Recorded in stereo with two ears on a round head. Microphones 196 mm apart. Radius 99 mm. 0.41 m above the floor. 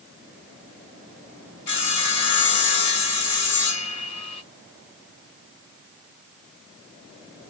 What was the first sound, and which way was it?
Sawing, 55° left (ahead or behind).